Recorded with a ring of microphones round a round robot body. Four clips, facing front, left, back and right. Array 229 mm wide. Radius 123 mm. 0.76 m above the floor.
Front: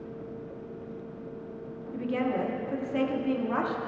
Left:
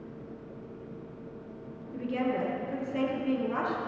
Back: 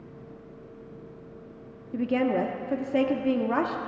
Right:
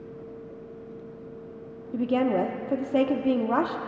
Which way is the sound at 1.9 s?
120° right.